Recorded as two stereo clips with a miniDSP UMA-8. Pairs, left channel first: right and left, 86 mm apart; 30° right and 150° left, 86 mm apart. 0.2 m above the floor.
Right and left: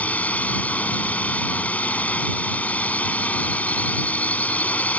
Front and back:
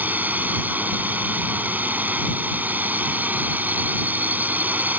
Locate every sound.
0.0 s a drone: 150° right